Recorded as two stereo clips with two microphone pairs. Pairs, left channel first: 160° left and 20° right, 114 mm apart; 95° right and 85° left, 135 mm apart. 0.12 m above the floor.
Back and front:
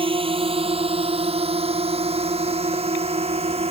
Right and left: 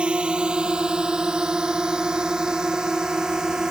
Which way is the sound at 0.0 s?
5° left.